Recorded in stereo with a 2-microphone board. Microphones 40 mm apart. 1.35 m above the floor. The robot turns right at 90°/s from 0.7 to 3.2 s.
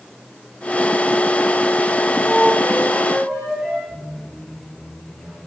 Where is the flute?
105° right, 4.5 m; by 3.8 s 15° right, 4.5 m.